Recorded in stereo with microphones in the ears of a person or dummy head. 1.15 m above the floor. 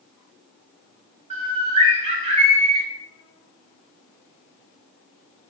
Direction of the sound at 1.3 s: 35° right (ahead or behind).